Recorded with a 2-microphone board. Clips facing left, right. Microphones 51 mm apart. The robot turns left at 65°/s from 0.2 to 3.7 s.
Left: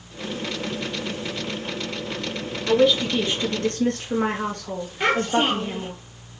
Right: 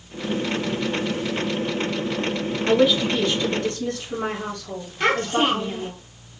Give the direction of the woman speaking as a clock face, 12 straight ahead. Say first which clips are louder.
Even; 5 o'clock.